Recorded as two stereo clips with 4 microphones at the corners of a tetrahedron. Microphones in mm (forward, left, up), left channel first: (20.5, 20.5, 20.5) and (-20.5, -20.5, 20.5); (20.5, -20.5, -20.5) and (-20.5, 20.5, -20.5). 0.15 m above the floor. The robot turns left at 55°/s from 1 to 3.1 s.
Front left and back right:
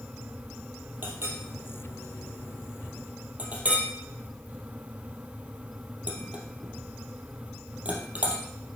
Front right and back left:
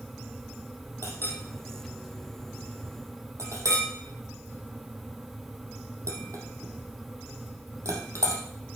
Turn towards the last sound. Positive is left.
turn(degrees=165)